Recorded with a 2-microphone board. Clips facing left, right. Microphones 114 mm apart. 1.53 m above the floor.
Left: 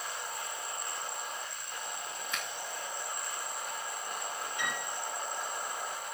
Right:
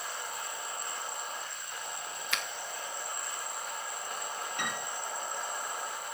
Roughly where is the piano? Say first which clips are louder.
Even; right.